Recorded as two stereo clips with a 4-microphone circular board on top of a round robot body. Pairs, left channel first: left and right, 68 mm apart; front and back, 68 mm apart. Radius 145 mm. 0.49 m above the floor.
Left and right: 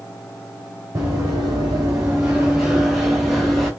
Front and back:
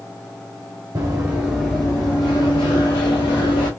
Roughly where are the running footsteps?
Behind right.